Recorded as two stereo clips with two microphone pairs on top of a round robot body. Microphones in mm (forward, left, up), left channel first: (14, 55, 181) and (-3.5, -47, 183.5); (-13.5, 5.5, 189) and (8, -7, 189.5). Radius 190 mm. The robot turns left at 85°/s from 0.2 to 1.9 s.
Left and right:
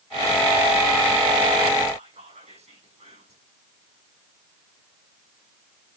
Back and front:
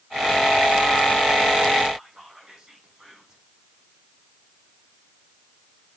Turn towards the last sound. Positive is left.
turn(degrees=-95)